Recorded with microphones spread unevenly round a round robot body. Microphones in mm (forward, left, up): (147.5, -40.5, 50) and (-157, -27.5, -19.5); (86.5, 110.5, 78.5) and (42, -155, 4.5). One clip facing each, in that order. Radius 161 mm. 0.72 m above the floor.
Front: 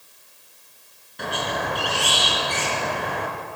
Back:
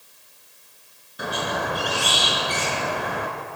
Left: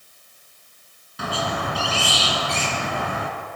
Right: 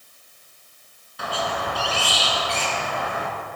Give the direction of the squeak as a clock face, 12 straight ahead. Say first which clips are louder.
Back 1 dB, left 1 dB; 9 o'clock.